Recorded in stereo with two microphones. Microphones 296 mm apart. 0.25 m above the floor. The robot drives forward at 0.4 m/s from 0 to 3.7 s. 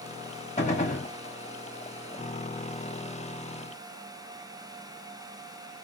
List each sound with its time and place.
0.6 s a gunshot: 25° left (ahead or behind), 1.7 m